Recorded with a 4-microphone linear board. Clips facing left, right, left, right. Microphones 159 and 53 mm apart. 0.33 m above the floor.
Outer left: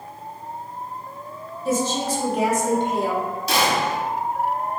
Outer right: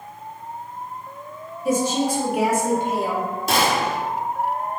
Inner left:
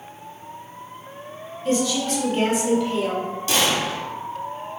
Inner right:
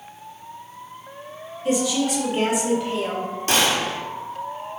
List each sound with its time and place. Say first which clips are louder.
1.6 s a woman speaking: outer right 2 dB, inner right 1 dB; 15° right (ahead or behind), 1.1 m; by 3.3 s 5° right (ahead or behind), 1.9 m
3.5 s a gunshot: outer right 1 dB, inner right 1 dB; 55° right (ahead or behind), 0.8 m